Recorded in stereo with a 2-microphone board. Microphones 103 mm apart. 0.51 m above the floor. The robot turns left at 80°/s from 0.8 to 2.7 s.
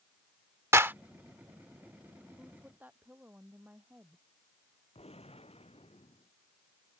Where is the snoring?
I don't hear snoring.